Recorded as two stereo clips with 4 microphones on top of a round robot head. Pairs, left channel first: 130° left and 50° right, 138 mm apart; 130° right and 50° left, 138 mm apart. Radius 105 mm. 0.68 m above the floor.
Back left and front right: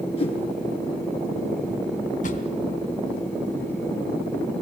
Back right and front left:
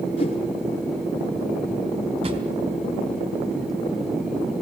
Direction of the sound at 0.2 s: Straight behind.